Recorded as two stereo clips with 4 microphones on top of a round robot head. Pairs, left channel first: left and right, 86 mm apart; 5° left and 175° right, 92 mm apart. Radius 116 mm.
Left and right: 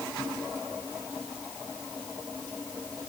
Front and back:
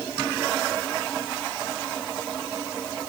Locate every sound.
Only background noise.